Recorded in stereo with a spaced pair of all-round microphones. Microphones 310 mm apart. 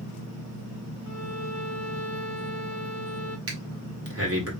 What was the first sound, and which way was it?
A violin, 60° left (ahead or behind).